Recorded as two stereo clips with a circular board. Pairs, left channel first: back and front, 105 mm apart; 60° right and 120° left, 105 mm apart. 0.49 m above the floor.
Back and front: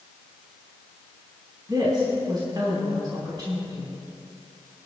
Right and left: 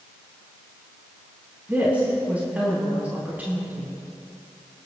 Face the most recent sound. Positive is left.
turn(degrees=45)